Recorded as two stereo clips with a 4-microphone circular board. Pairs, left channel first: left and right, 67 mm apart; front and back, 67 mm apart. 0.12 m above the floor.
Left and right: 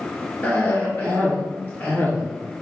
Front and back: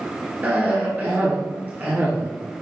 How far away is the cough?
About 1.5 m.